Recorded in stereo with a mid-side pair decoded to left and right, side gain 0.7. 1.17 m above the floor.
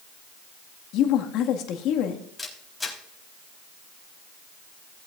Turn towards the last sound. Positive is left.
turn(degrees=10)